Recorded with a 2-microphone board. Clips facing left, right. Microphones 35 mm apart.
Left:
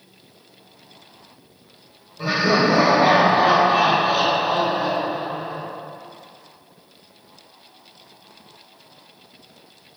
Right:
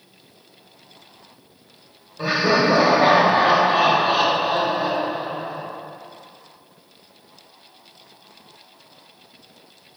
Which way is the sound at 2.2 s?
45° right (ahead or behind).